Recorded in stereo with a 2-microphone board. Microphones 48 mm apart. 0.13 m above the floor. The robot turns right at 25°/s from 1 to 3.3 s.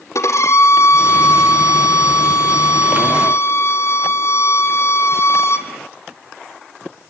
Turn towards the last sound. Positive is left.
turn(degrees=125)